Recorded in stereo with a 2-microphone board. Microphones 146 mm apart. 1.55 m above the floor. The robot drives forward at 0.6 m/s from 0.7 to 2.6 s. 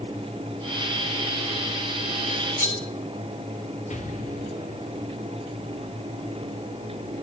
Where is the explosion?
55° left (ahead or behind), 1.8 m.